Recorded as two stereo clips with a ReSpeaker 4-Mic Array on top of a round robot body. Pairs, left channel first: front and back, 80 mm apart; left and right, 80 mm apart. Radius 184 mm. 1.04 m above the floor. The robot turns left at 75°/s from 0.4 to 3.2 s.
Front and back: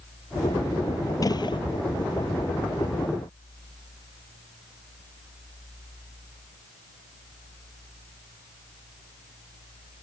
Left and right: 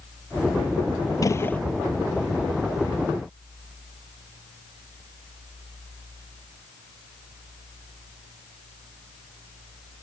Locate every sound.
1.2 s a gunshot: 45° left; by 1.6 s 15° left